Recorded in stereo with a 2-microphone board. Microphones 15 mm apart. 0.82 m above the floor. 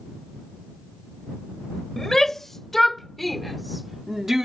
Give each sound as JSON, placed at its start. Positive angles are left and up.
{"t": 2.0, "sound": "a shout", "side_deg": 15}